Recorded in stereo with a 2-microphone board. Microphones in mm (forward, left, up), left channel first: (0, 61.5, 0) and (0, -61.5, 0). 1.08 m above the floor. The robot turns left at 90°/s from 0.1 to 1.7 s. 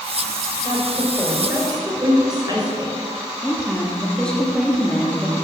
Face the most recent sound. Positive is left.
turn(degrees=5)  # may be behind; listen again after turning